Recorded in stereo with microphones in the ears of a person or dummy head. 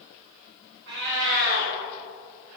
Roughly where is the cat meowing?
Right.